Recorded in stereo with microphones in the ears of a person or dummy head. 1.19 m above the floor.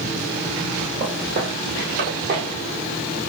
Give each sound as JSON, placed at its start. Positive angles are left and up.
{"t": 1.0, "sound": "footsteps", "side_deg": -25, "distance_m": 1.3}